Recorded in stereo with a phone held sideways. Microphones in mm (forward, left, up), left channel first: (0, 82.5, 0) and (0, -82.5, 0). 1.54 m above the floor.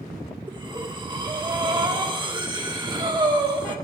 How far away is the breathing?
About 1.3 m.